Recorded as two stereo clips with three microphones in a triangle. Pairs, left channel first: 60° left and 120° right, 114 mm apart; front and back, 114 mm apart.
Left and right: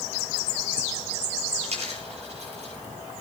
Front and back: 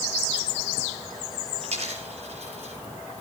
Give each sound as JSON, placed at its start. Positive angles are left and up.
{"t": 1.6, "sound": "a dropped coin", "azimuth_deg": -150, "distance_m": 8.5}